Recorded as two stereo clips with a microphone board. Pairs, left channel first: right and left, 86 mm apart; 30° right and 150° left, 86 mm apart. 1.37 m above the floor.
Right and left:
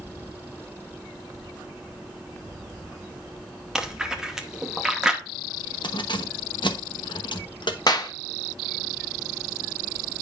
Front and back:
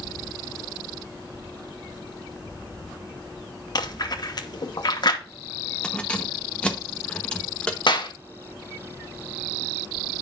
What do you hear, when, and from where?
3.8 s chewing: 5° left, 1.1 m
5.8 s keys jangling: 105° right, 1.0 m
7.9 s a clap: 50° right, 1.3 m